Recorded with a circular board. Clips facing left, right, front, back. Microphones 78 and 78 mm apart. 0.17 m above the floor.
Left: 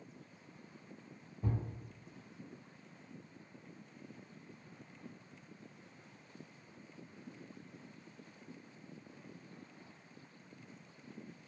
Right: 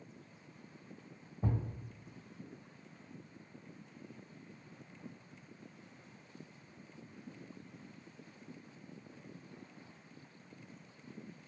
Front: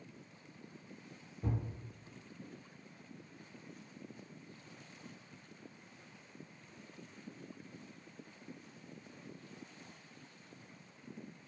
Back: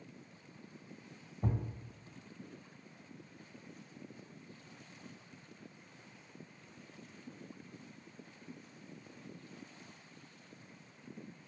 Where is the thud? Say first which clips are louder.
Right 2 dB, back 2 dB; 130° right, 1.1 m.